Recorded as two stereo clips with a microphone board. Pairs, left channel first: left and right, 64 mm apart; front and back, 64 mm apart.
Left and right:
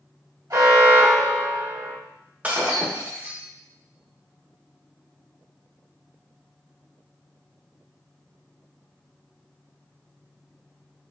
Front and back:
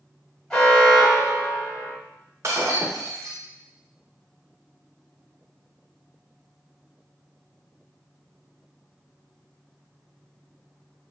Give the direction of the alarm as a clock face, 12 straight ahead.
3 o'clock.